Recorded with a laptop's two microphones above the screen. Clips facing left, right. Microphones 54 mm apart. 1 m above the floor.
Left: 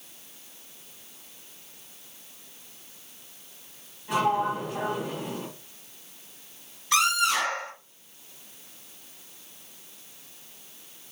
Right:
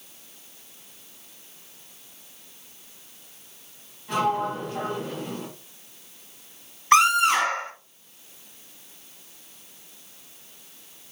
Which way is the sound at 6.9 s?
40° right (ahead or behind).